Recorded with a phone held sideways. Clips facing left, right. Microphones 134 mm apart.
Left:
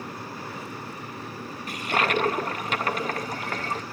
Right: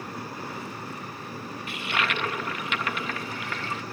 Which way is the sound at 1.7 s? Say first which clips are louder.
Left 5 dB; 40° left (ahead or behind).